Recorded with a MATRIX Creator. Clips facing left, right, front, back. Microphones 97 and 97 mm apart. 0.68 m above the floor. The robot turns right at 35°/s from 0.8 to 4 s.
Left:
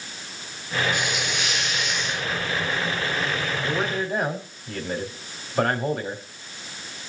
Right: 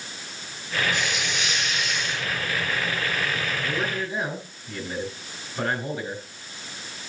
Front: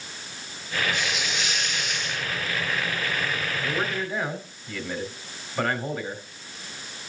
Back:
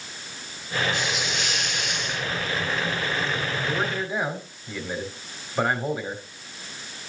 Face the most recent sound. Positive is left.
turn(degrees=110)